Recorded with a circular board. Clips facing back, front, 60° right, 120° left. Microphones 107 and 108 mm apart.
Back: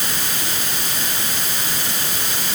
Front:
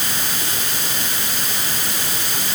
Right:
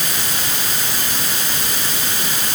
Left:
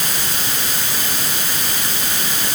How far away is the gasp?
No gasp in this recording.